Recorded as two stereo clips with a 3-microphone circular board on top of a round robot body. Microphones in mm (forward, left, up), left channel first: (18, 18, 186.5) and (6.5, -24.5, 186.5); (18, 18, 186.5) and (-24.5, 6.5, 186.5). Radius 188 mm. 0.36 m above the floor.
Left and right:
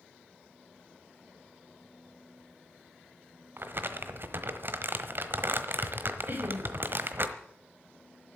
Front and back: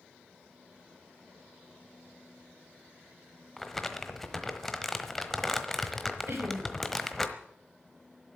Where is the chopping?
No chopping in this recording.